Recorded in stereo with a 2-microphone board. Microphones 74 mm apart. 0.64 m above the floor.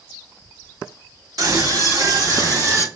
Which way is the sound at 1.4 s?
50° right (ahead or behind).